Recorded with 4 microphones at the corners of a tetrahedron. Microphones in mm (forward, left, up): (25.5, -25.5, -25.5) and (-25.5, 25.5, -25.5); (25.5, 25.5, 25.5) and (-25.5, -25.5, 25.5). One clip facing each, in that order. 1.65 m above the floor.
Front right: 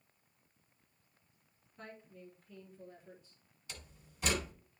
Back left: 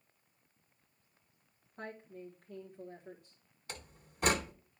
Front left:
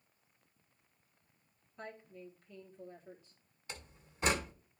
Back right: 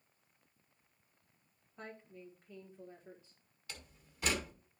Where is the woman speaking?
160° left, 1.8 m.